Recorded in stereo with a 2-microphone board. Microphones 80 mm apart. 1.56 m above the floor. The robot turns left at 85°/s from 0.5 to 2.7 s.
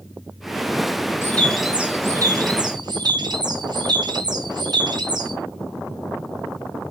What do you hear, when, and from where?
1.2 s a bird: 30° left, 0.5 m; by 5.3 s 95° right, 0.5 m